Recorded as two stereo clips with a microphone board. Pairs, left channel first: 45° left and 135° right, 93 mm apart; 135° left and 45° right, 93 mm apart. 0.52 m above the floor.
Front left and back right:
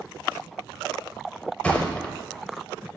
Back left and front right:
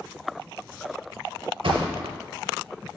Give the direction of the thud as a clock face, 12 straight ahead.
1 o'clock.